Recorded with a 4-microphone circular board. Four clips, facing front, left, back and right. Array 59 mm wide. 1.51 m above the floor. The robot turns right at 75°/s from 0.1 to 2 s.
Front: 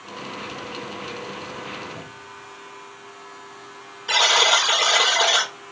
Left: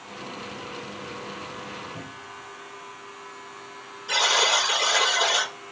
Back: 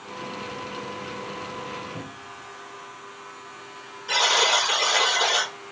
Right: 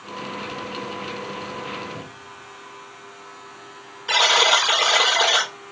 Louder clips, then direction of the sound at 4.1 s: Right 5 dB, front 3 dB; 65° right.